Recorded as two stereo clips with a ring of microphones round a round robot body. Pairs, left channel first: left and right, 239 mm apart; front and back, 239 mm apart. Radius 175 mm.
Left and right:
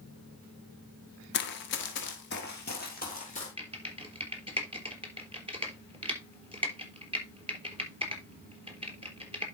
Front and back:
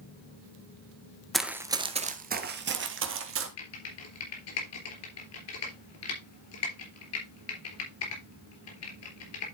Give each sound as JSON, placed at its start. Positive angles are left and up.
{"t": 1.3, "sound": "running footsteps", "azimuth_deg": 90, "distance_m": 1.1}
{"t": 3.6, "sound": "typing on a keyboard", "azimuth_deg": -20, "distance_m": 3.5}